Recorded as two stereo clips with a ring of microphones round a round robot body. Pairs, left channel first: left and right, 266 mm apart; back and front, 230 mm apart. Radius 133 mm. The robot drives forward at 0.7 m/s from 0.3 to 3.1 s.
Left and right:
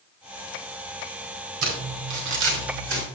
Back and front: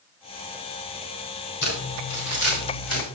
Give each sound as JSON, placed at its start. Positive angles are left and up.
{"t": 1.6, "sound": "crumpling", "azimuth_deg": -125, "distance_m": 4.5}